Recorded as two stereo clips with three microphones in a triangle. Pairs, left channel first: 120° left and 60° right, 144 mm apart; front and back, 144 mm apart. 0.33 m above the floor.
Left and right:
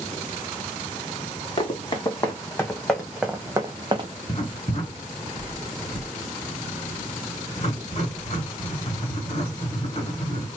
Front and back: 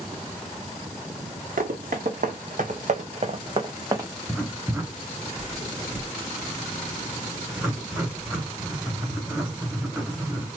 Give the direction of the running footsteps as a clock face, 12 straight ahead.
6 o'clock.